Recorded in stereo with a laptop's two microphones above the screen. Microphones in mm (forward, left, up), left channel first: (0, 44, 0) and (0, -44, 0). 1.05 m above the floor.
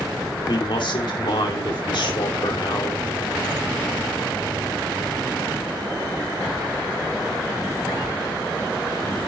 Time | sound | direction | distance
0.5 | a man speaking | 65° left (ahead or behind) | 2.5 m